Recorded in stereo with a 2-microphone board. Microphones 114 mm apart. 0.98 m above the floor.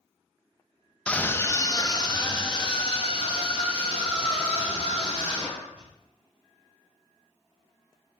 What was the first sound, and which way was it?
A scream, 10° left (ahead or behind).